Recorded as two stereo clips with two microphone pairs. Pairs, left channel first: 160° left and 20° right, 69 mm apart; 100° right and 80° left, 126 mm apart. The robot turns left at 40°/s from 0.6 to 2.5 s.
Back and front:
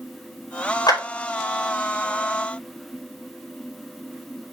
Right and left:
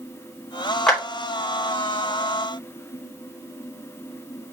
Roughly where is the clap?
Behind.